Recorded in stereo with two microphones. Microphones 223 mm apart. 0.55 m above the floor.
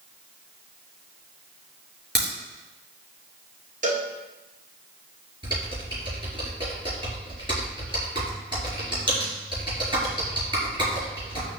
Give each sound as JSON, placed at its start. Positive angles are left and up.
{"t": 2.1, "sound": "a crack", "side_deg": -50, "distance_m": 5.0}
{"t": 3.8, "sound": "a cowbell", "side_deg": -35, "distance_m": 1.6}
{"t": 5.4, "sound": "typing on a keyboard", "side_deg": -20, "distance_m": 5.0}